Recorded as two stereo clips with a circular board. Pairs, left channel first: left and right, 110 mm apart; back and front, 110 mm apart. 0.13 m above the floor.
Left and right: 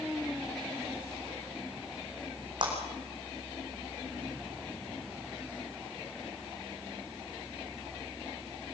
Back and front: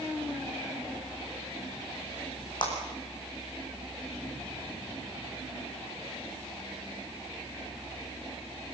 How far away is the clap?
About 6 m.